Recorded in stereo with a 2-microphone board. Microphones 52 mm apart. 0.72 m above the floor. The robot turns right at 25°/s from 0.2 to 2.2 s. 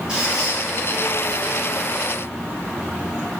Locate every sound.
0.1 s a squeak: 20° right (ahead or behind), 0.9 m; by 0.6 s 10° right (ahead or behind), 0.9 m